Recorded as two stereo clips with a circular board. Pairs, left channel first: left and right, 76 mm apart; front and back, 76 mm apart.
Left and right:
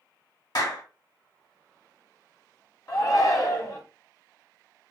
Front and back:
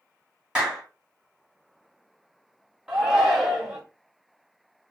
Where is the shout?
100° left, 1.6 m.